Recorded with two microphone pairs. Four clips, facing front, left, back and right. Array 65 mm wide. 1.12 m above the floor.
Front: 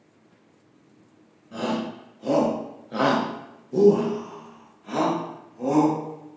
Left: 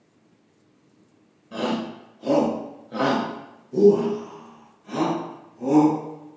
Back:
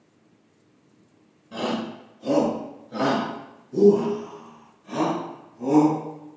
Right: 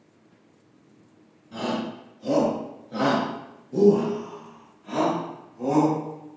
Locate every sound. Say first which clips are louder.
1.5 s a shout: left 2 dB, even; 90° left, 0.9 m; by 6.4 s 25° right, 2 m